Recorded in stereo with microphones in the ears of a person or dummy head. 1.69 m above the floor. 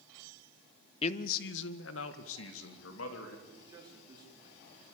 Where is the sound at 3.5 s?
15° right (ahead or behind), 4.5 m.